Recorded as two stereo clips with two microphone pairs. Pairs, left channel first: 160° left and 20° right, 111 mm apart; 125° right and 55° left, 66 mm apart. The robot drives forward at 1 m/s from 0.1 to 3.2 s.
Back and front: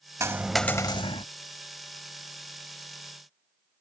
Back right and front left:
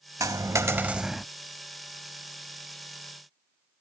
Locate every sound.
0.2 s a dropped coin: 40° left; by 1.3 s 145° left